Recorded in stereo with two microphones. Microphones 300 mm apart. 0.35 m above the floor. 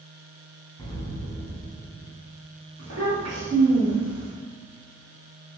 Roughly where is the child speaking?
Right.